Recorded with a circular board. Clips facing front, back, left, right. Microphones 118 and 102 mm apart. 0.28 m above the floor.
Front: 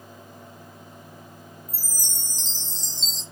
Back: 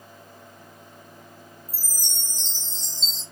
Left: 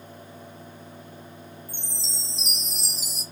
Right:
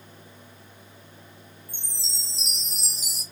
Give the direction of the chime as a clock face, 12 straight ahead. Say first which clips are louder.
Front 1 dB, left 5 dB; 7 o'clock.